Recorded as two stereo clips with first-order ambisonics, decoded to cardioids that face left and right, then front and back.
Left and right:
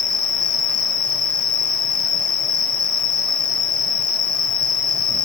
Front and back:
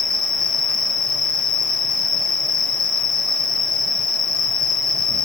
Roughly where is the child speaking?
No child speaking in this recording.